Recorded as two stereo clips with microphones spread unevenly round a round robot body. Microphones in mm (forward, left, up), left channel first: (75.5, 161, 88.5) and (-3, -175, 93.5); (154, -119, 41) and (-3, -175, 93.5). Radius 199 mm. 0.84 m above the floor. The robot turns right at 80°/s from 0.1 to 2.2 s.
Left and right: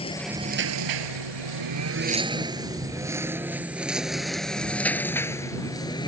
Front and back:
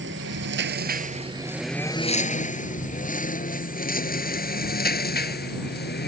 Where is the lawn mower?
155° left; by 6.1 s straight ahead.